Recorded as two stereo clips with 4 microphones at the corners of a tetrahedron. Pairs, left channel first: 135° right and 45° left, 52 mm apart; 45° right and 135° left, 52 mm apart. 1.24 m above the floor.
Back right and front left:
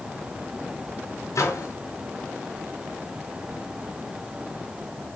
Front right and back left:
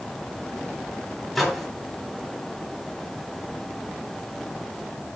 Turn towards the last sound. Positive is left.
turn(degrees=-135)